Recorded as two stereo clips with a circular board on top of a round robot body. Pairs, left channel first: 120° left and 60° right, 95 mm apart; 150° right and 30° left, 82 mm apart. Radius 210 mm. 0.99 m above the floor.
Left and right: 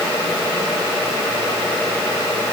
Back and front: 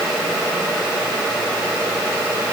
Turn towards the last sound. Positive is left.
No sound to turn to.